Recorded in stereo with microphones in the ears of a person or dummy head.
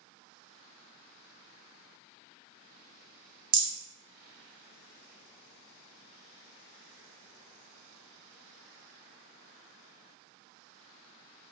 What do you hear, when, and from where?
3.5 s a rattle: 70° right (ahead or behind), 1.3 m